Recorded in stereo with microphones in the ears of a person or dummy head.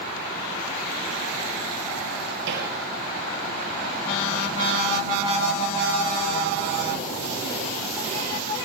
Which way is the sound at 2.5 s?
65° right (ahead or behind).